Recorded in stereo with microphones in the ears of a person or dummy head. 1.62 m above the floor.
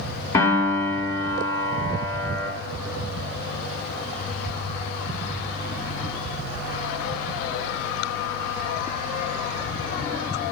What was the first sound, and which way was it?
A piano, 15° left (ahead or behind).